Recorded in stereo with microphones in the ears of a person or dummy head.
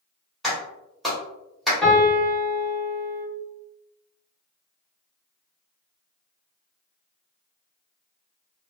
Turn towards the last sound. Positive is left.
turn(degrees=10)  # may be behind; listen again after turning